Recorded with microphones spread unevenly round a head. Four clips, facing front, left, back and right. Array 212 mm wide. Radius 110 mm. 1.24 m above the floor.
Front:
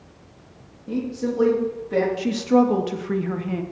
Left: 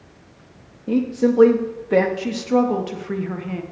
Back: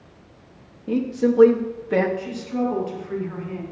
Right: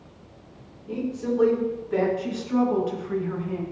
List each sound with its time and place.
0.9 s a woman speaking: 110° left, 1.7 m
2.2 s a woman speaking: 25° left, 1.8 m